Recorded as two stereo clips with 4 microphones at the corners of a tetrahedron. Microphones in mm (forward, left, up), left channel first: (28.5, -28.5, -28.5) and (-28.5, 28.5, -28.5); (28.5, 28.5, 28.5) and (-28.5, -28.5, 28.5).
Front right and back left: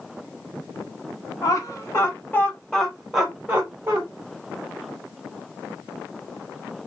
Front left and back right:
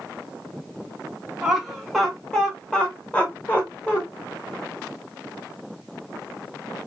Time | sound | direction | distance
1.4 | laughter | 45° right | 1.2 m